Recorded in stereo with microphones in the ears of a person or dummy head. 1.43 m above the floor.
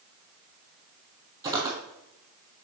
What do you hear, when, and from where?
1.4 s footsteps: 20° right (ahead or behind), 2 m